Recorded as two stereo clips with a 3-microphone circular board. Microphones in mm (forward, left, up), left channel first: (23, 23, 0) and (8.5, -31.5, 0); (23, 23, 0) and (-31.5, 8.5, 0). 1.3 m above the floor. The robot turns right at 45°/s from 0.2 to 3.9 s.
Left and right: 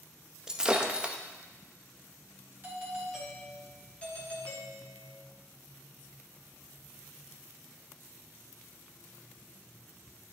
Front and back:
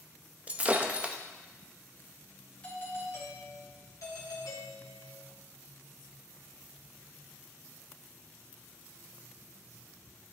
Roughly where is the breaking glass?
Behind.